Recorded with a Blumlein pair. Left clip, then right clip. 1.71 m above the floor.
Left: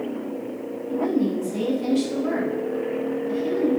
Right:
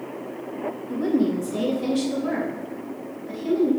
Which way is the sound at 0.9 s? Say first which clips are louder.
Even; 15° right.